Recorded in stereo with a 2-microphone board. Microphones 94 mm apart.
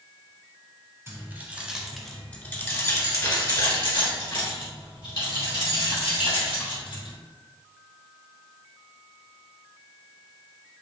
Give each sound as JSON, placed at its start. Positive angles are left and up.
{"t": 1.1, "sound": "keys jangling", "side_deg": -30, "distance_m": 1.0}